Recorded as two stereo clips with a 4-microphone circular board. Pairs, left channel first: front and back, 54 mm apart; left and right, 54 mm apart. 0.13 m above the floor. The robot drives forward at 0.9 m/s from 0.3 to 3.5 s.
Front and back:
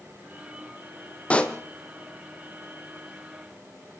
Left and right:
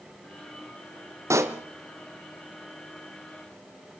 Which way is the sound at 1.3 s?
65° right.